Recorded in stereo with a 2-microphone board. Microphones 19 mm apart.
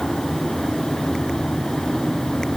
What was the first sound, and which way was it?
Only background noise.